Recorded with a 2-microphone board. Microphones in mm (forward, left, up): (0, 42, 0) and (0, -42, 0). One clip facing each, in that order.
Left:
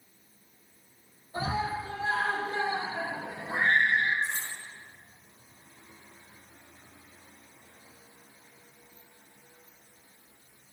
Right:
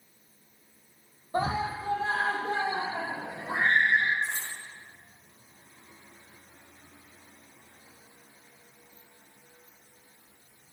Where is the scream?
50° right (ahead or behind), 5.5 m; by 4.1 s 80° right, 6.5 m.